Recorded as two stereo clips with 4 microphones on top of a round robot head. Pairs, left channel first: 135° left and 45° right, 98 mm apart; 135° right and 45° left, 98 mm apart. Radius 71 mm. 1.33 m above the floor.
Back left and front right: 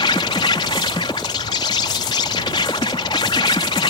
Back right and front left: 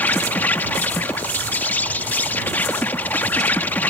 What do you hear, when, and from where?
0.0 s an insect: 155° left